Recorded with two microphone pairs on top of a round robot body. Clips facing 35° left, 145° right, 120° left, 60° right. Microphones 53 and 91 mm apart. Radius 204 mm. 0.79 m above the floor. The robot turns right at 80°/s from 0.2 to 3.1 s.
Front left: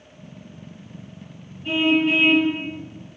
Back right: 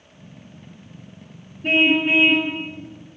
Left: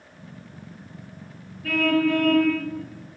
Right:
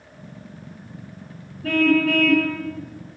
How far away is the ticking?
I don't hear ticking.